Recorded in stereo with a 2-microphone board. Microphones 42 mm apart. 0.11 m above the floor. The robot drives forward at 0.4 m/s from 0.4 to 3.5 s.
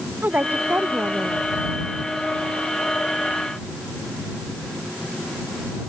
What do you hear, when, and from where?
0.2 s a woman speaking: 50° right (ahead or behind); by 1.5 s 45° right (ahead or behind)